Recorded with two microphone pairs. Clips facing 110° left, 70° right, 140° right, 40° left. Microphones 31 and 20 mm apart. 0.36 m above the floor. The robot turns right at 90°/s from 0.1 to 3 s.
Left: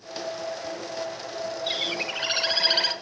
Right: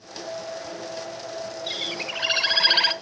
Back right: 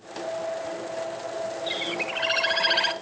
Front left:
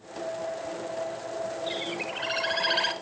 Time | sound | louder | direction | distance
1.7 | a bird | left 1 dB, back right 3 dB | 175° left | 1.0 m